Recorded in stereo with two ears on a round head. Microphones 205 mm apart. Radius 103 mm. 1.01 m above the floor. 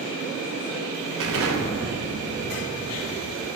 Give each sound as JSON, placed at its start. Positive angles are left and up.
{"t": 1.2, "sound": "an explosion", "side_deg": -65, "distance_m": 0.8}